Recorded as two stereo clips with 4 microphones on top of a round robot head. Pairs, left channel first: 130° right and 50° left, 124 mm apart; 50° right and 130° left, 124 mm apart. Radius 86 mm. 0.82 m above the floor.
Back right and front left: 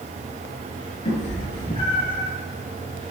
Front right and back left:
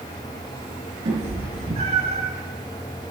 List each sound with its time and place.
1.1 s a cat meowing: 175° left, 5 m